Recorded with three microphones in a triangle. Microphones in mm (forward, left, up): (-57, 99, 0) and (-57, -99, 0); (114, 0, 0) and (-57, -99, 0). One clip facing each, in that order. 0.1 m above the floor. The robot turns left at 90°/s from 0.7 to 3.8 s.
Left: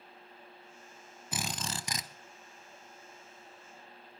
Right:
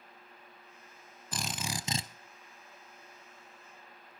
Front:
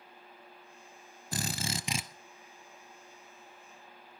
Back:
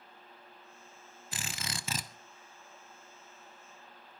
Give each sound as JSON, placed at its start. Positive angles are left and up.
{"t": 1.3, "sound": "a drill", "azimuth_deg": 15, "distance_m": 0.8}